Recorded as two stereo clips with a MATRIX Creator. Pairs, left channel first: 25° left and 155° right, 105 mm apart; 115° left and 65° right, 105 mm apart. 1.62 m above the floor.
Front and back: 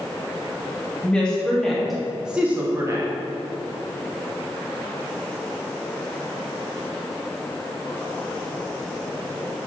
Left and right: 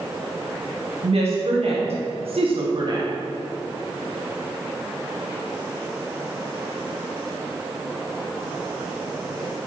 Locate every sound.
1.0 s a woman speaking: 55° right, 2 m; by 3.1 s 120° right, 0.8 m